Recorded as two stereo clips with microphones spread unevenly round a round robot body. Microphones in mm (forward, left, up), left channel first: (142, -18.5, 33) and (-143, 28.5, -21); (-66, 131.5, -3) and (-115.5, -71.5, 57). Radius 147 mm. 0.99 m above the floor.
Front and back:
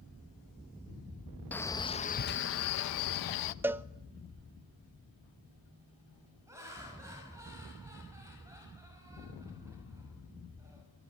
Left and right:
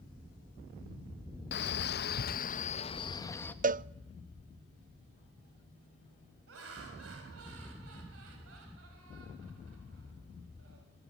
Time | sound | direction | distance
1.5 | a man speaking | 80° left | 1.0 m
3.6 | a cowbell | 140° right | 0.5 m
6.5 | laughter | 110° right | 5.5 m